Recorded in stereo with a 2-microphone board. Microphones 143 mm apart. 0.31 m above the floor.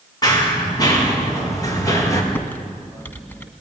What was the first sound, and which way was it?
Running footsteps, 30° left (ahead or behind).